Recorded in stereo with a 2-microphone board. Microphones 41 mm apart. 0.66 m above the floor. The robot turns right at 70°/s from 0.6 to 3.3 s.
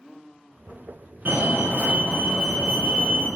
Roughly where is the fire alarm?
Right.